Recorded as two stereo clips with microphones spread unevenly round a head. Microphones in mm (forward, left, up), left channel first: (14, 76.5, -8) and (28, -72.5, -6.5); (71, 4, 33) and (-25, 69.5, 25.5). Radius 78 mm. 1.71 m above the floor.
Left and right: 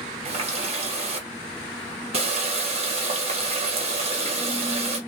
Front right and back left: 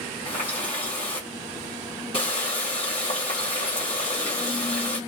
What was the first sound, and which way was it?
A running tap, 60° right.